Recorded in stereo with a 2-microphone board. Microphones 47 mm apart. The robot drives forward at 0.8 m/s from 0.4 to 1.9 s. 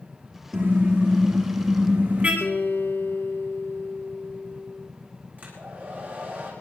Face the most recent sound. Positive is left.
turn(degrees=-40)  # may be behind; listen again after turning